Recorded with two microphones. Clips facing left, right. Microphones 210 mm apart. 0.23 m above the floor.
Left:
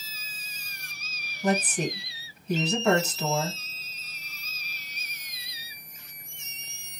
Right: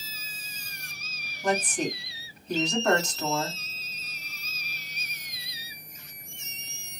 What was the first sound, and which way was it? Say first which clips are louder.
A woman speaking: left 1 dB; 5° left (ahead or behind).